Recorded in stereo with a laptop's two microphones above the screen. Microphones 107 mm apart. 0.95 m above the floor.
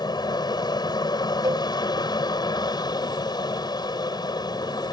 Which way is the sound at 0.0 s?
40° left (ahead or behind).